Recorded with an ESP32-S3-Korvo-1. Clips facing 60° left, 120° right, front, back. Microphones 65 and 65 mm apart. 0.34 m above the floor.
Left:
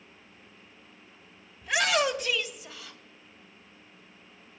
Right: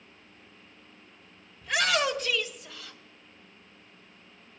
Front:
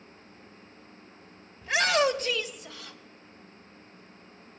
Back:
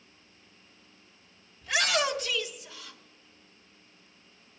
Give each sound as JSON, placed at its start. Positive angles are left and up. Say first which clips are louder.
{"t": 1.6, "sound": "a shout", "louder": "left 1 dB, front 4 dB", "azimuth_deg": -20, "distance_m": 1.3}